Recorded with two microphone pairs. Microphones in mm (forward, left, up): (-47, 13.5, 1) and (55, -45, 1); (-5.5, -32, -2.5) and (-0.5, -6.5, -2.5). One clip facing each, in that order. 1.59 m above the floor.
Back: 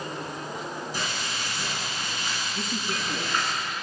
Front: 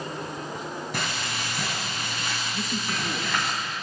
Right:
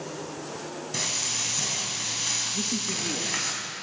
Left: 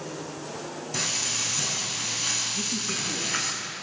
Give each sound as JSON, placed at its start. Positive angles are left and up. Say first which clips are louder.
{"t": 0.9, "sound": "frying", "louder": "front 1 dB, left 1 dB", "azimuth_deg": -20, "distance_m": 5.5}
{"t": 2.5, "sound": "a man speaking", "louder": "front 1 dB, even", "azimuth_deg": -120, "distance_m": 2.0}